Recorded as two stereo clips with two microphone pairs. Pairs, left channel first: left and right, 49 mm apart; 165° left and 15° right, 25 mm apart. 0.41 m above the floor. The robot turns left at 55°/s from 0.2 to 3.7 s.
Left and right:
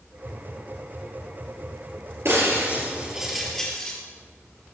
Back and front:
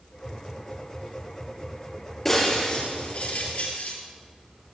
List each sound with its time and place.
2.2 s breaking glass: 115° right, 4.5 m; by 4.0 s 165° left, 4.5 m